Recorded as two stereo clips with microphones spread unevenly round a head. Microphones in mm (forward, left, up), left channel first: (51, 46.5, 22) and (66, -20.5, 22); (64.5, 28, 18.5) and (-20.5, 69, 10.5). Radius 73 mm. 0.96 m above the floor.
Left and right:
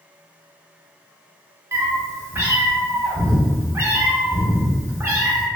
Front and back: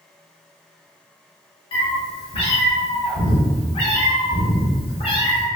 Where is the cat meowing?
30° right, 0.8 m.